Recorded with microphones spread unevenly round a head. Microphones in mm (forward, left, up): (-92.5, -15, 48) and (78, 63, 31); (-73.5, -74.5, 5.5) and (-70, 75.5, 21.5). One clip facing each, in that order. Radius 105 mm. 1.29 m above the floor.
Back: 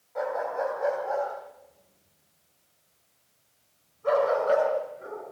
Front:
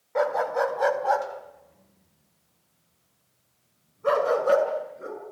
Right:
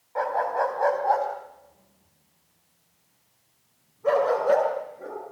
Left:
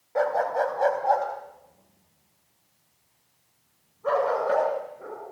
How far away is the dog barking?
About 2.5 m.